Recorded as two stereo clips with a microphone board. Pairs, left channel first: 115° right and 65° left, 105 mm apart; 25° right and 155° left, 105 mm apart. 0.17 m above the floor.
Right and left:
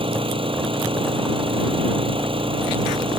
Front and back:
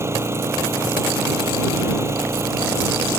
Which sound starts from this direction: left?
An engine running, at 0.0 s.